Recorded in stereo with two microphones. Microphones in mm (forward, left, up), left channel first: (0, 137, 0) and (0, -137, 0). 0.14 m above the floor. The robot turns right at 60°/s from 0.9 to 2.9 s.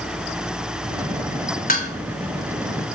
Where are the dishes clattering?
30° left (ahead or behind), 0.9 m.